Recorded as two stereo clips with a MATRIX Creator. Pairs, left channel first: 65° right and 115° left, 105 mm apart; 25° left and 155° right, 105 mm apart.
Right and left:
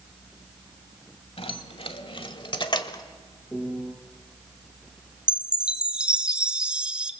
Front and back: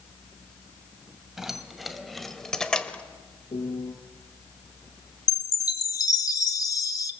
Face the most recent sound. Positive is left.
turn(degrees=40)